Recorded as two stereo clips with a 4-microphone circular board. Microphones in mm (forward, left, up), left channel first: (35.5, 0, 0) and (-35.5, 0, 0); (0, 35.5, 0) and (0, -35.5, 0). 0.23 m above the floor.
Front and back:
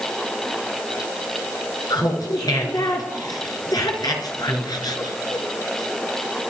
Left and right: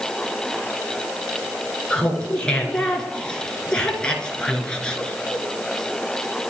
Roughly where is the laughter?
Ahead.